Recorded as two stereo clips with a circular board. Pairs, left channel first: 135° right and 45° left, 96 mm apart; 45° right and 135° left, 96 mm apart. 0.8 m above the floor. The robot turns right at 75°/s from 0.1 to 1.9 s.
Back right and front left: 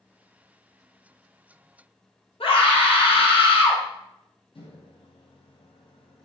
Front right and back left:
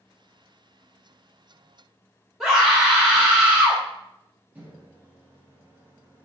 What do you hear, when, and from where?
2.4 s a scream: 140° right, 1.0 m
4.5 s a microwave: 155° right, 0.5 m